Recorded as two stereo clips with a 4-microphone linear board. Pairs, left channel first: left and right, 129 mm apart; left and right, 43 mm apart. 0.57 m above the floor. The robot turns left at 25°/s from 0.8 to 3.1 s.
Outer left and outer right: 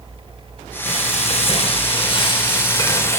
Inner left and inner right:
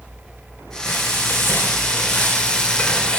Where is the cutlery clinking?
I don't hear cutlery clinking.